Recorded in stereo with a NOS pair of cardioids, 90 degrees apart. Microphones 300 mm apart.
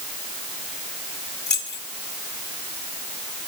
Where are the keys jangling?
35° left, 3 m.